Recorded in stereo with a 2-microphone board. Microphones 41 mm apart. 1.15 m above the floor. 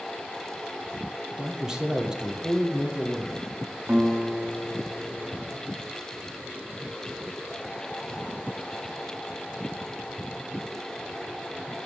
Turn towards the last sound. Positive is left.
turn(degrees=-50)  # may be behind; listen again after turning